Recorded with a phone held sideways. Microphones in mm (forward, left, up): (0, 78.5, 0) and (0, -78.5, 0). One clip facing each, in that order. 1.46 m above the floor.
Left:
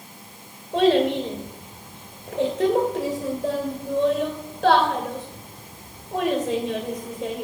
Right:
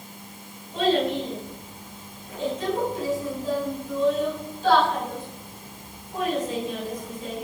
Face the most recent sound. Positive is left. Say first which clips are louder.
# left 4 dB
turn(degrees=80)